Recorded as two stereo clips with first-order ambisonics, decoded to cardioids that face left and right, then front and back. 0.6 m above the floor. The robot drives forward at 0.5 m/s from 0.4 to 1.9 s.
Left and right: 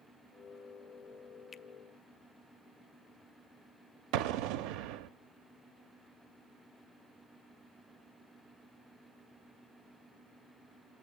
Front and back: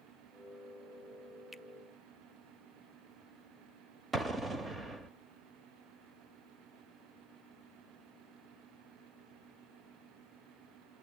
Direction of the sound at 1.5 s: 105° left.